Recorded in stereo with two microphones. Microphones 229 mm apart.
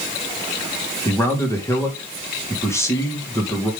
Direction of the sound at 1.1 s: 10° left (ahead or behind).